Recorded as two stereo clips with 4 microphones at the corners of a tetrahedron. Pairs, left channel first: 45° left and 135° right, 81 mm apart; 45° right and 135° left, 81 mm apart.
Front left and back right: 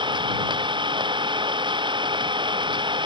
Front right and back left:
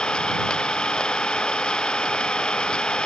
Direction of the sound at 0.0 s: 125° right.